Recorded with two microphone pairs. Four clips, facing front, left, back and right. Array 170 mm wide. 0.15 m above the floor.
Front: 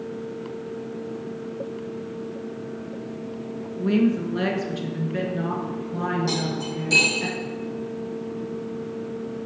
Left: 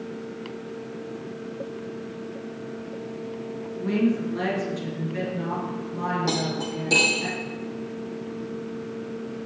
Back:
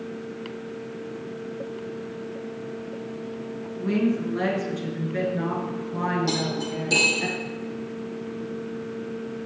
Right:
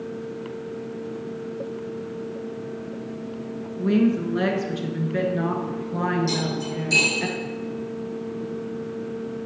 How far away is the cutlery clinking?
About 3.5 m.